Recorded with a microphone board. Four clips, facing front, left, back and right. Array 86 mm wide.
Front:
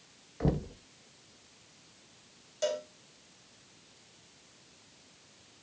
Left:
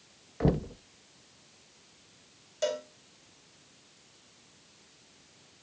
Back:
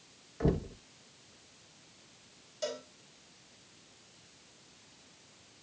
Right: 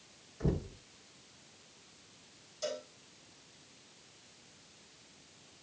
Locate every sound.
0.4 s knocking: 90° left, 1.1 m
2.6 s a cowbell: 70° left, 5 m